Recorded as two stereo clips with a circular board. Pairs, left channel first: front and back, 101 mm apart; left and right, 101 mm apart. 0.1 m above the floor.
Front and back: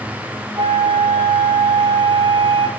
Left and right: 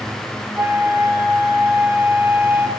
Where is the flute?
155° right, 2.5 m.